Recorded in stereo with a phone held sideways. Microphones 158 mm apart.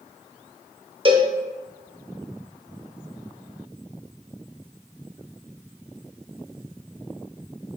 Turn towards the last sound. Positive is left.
turn(degrees=-35)  # may be behind; listen again after turning